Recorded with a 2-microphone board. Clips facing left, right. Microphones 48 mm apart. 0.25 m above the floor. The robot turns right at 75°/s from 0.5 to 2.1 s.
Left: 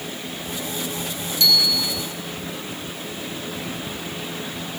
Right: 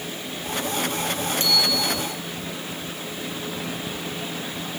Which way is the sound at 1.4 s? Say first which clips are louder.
Left 4 dB; 140° right.